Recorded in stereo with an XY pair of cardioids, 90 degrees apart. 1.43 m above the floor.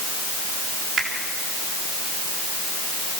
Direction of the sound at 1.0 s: 70° right.